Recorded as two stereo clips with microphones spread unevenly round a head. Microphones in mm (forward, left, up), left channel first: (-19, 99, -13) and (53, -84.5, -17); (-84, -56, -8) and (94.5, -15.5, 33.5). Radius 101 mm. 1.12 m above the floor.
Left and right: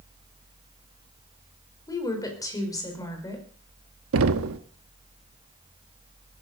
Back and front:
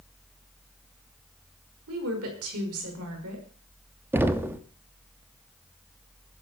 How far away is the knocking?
About 1.1 m.